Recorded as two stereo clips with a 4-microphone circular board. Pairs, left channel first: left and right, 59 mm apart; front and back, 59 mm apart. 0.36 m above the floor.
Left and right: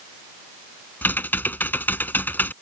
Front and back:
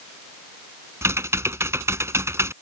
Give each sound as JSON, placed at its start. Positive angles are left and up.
{"t": 1.0, "sound": "typing on a keyboard", "azimuth_deg": 145}